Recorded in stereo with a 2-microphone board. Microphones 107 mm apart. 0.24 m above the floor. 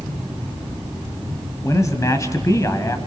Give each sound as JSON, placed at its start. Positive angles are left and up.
{"t": 1.6, "sound": "a man speaking", "side_deg": 30, "distance_m": 1.5}